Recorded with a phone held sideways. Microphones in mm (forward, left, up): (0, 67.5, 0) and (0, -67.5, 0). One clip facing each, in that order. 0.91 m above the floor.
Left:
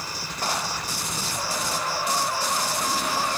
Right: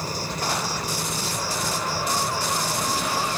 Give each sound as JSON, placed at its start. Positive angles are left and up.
{"t": 0.0, "sound": "an insect", "side_deg": -45}